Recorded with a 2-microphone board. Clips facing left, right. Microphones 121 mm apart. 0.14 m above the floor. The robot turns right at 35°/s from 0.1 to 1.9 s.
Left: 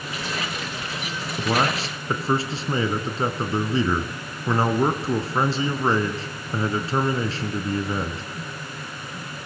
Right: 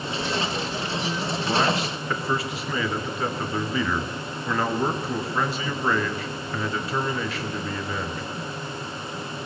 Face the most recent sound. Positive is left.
turn(degrees=30)  # may be behind; listen again after turning